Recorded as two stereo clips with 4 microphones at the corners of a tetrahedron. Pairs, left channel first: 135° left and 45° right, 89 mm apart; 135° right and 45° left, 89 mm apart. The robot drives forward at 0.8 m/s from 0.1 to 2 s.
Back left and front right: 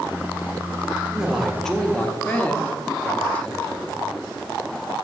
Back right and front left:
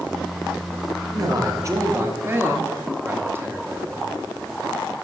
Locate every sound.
1.1 s a man speaking: 30° left, 1.3 m; by 4.1 s 80° left, 1.1 m